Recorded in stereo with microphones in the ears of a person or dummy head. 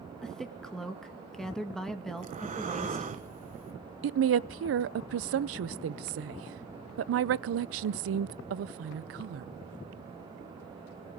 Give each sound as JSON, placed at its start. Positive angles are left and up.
{"t": 0.2, "sound": "a woman speaking", "side_deg": 0, "distance_m": 1.6}
{"t": 2.2, "sound": "breathing", "side_deg": -35, "distance_m": 1.2}
{"t": 4.0, "sound": "a woman speaking", "side_deg": -70, "distance_m": 0.6}